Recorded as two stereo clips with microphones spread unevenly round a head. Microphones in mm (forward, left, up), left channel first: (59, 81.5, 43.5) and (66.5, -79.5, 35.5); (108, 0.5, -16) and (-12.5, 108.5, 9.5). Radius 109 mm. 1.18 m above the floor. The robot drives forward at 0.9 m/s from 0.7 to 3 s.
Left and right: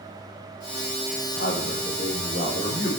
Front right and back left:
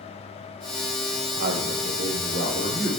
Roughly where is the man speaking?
Behind left.